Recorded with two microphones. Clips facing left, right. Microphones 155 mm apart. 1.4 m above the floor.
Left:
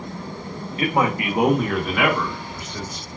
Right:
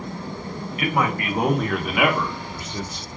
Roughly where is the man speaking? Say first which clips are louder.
Left 2 dB; left.